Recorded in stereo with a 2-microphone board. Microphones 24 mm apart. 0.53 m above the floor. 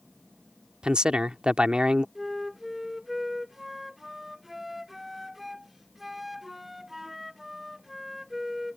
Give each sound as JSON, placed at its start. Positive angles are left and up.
{"t": 0.8, "sound": "a man speaking", "side_deg": -40}
{"t": 2.1, "sound": "a flute", "side_deg": -10}